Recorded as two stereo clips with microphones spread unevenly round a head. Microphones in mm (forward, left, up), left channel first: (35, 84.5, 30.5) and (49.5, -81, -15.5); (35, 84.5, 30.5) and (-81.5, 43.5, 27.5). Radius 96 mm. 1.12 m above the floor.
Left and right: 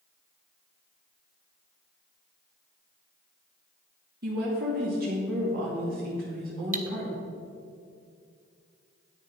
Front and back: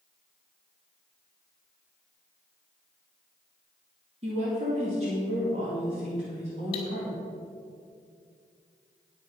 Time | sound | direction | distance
4.2 | a woman speaking | 115° right | 2 m
6.7 | cutlery clinking | 40° right | 1.2 m